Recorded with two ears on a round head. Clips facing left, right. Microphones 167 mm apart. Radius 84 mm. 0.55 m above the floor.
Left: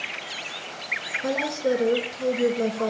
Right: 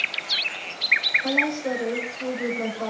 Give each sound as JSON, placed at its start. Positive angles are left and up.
{"t": 1.2, "sound": "a woman speaking", "side_deg": 45, "distance_m": 7.0}